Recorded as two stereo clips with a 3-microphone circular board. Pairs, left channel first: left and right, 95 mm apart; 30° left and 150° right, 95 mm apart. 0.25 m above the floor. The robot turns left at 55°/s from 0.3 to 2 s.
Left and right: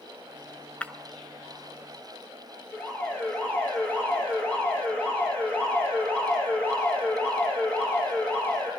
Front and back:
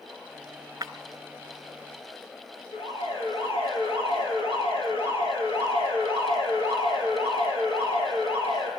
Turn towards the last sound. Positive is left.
turn(degrees=15)